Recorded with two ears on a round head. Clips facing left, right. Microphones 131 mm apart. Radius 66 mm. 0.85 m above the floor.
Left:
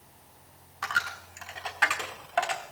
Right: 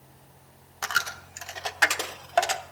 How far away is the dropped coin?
About 0.8 m.